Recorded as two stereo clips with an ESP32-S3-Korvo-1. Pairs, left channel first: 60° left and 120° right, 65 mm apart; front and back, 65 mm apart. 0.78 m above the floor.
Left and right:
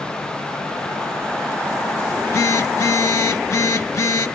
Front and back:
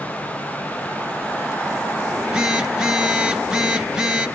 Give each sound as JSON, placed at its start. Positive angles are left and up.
{"t": 2.1, "sound": "a phone buzzing", "azimuth_deg": 100, "distance_m": 0.9}